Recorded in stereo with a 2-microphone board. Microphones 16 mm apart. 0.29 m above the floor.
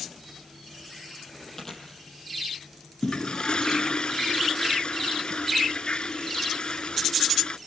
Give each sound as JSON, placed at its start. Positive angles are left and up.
{"t": 1.6, "sound": "chewing", "side_deg": 25, "distance_m": 5.5}
{"t": 3.0, "sound": "a toilet flushing", "side_deg": 65, "distance_m": 0.5}